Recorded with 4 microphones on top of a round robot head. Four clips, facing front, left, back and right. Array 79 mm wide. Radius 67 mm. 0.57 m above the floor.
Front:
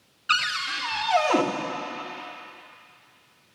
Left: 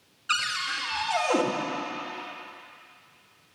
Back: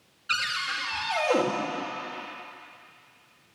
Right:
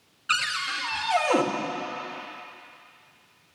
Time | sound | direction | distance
0.3 | a cupboard door | 25° right | 1.7 m